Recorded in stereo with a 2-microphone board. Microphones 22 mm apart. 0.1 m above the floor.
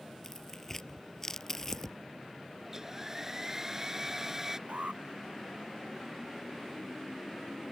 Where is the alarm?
80° right.